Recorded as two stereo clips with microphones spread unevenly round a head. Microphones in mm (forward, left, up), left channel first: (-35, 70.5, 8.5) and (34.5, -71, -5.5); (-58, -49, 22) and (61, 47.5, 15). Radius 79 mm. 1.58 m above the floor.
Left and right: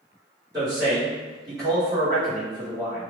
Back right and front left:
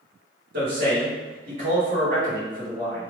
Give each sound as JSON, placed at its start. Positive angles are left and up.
{"t": 0.5, "sound": "a man speaking", "azimuth_deg": 10, "distance_m": 1.6}